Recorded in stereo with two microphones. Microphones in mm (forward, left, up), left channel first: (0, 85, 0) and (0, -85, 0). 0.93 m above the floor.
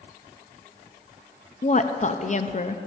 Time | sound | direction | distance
1.6 | a woman speaking | 45° left (ahead or behind) | 0.6 m